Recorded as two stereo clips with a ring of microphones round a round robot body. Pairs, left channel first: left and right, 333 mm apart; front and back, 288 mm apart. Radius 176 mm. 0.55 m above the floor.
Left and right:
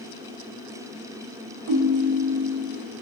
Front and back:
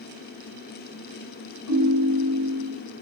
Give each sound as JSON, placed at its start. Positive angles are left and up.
{"t": 1.7, "sound": "a ringtone", "azimuth_deg": -45, "distance_m": 2.0}